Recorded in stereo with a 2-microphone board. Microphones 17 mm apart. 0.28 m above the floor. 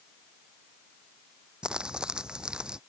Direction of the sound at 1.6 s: 70° right (ahead or behind).